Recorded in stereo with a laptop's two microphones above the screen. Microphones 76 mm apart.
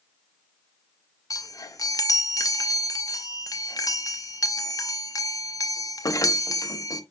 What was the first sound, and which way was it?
A chime, 55° left (ahead or behind).